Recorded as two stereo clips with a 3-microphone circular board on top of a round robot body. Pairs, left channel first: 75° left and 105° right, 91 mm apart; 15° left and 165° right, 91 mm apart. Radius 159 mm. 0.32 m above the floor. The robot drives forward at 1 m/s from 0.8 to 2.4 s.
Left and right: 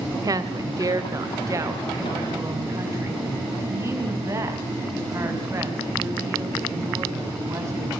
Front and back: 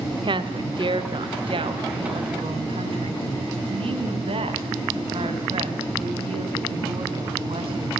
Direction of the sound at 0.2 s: 150° right.